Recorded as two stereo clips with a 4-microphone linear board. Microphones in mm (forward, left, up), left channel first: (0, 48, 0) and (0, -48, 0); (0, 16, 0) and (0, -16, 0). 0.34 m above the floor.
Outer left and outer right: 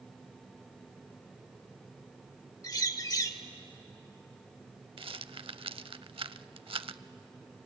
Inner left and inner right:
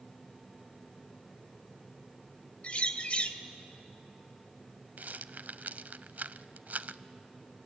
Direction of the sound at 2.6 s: 40° left (ahead or behind).